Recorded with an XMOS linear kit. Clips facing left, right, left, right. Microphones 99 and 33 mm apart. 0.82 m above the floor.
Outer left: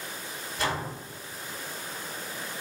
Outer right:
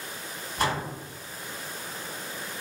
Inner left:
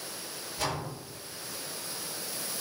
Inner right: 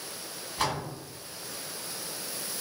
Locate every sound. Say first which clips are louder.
0.6 s a door slam: outer right 3 dB, inner right 3 dB; 60° right (ahead or behind), 1.3 m